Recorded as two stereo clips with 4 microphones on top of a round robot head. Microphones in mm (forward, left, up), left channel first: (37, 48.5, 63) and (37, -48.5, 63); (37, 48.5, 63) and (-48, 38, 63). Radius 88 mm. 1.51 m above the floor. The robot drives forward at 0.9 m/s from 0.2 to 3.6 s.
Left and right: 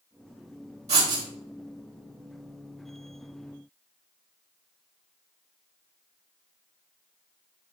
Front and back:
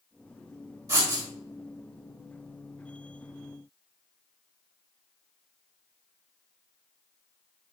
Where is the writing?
115° right, 1.8 m; by 1.2 s 125° right, 2.0 m.